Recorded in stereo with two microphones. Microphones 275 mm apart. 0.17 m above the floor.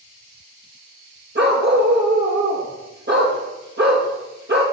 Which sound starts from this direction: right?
A dog barking, at 1.4 s.